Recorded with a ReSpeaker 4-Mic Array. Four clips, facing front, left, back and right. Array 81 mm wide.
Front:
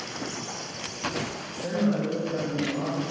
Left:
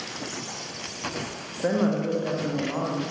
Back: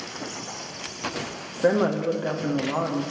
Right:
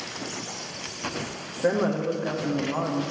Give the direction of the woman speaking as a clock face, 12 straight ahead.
6 o'clock.